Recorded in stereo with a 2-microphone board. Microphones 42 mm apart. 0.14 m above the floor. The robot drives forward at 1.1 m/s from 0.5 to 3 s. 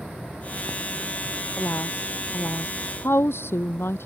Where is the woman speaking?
70° left (ahead or behind); by 4.1 s 75° left (ahead or behind).